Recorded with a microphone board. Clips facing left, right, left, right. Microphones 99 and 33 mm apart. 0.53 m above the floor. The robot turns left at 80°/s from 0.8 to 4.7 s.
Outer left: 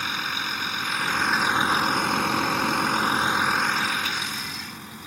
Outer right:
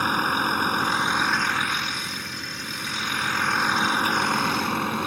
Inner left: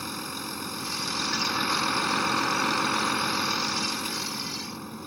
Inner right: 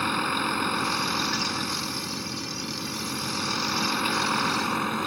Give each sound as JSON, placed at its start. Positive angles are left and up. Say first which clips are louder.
{"t": 0.0, "sound": "a vehicle", "louder": "outer right 7 dB, inner right 9 dB", "azimuth_deg": -135}